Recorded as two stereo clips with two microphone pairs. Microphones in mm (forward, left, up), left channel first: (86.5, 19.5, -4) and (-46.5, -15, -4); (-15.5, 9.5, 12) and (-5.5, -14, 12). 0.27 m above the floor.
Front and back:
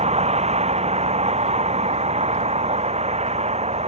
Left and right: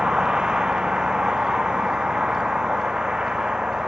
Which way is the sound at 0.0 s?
125° right.